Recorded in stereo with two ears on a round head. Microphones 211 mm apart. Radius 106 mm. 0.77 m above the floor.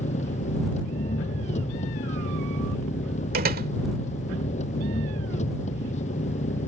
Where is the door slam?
40° right (ahead or behind).